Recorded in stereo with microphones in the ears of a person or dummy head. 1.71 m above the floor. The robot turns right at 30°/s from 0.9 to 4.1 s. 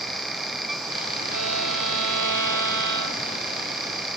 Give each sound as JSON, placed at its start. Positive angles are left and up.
{"t": 1.3, "sound": "a violin", "azimuth_deg": -115, "distance_m": 5.5}